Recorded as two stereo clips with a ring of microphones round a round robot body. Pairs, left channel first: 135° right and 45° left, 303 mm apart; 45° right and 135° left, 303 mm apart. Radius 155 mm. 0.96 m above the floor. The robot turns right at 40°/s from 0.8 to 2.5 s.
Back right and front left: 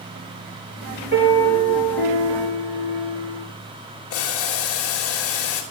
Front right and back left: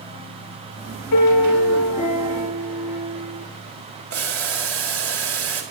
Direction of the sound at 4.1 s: Straight behind.